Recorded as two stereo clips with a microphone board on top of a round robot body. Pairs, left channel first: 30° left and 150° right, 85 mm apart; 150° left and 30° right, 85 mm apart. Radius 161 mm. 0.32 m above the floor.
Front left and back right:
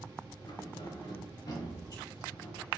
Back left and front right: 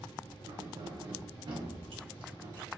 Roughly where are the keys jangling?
Ahead.